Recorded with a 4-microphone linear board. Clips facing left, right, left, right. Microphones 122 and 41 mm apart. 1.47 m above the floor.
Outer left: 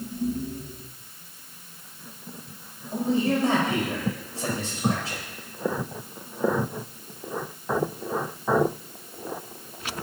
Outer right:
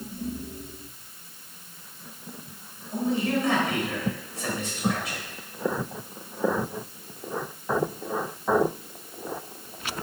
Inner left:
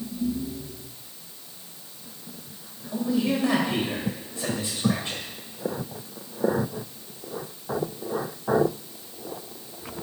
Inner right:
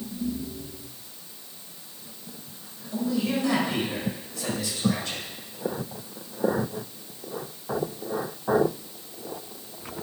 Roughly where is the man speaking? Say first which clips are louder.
Outer left 2 dB, inner left 2 dB; left.